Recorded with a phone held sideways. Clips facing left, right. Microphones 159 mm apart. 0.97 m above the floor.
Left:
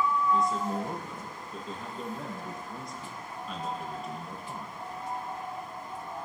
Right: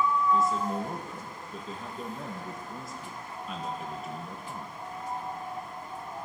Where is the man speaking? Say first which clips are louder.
Right 1 dB; centre (ahead or behind), 0.8 m.